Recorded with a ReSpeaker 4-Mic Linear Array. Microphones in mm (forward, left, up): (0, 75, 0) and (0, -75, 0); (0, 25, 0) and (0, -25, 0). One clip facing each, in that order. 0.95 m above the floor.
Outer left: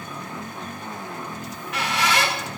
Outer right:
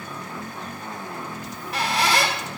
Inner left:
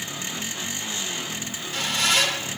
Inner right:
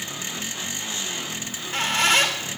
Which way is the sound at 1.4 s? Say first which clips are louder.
Outer right 2 dB, inner right 6 dB; 35° right (ahead or behind).